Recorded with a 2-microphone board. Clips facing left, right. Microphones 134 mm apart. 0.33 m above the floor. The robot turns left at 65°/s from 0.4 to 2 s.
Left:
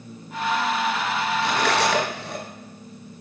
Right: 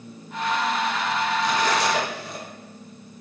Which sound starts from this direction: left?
Cutlery clinking, at 1.4 s.